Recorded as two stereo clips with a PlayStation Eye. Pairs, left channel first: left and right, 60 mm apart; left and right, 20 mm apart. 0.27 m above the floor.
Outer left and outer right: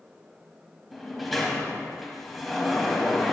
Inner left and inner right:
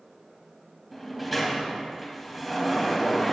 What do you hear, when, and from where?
0.9 s a sliding door: centre (ahead or behind), 1.0 m